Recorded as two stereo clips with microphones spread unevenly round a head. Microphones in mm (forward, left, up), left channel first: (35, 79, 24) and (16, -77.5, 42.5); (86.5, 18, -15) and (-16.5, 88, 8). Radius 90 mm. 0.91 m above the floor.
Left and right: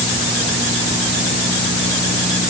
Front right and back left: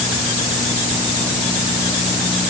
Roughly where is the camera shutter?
No camera shutter in this recording.